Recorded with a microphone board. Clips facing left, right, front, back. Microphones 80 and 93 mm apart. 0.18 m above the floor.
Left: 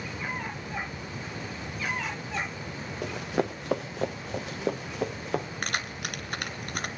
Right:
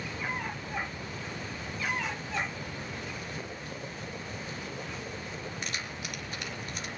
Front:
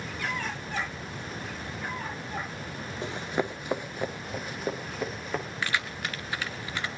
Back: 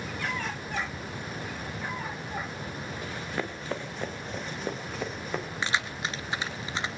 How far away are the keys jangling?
About 1.8 m.